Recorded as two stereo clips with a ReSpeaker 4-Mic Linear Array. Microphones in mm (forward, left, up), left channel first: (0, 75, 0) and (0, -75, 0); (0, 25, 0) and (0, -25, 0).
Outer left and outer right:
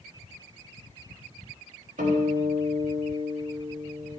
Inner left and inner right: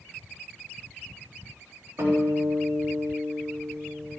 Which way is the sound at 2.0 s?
65° right (ahead or behind).